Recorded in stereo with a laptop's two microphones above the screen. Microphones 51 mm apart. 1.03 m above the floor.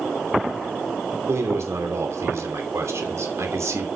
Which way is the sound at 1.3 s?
75° right (ahead or behind).